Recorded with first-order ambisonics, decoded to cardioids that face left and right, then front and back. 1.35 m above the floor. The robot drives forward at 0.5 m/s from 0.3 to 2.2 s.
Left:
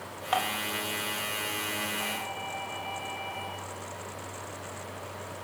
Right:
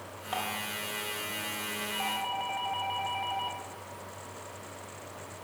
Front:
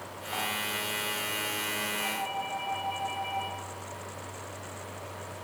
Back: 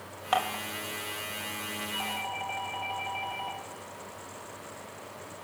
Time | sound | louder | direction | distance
0.3 | dishes clattering | left 5 dB, back 4 dB | 155° left | 1.7 m
1.9 | a doorbell | right 1 dB, front 2 dB | 125° right | 5.5 m